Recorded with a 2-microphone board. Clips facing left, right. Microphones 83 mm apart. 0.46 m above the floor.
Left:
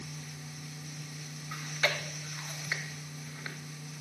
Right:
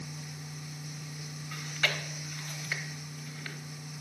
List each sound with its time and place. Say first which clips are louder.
1.5 s chewing: left 1 dB; 25° left (ahead or behind), 1.0 m